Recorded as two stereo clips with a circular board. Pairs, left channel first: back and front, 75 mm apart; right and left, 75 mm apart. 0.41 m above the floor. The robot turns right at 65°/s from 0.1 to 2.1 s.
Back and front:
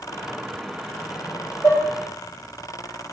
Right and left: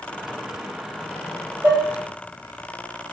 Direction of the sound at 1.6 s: 145° left.